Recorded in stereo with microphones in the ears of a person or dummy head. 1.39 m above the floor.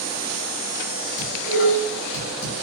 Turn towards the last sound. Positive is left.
turn(degrees=65)  # may be behind; listen again after turning